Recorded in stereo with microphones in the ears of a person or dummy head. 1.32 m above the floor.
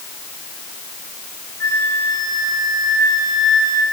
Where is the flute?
15° left (ahead or behind), 2.0 m.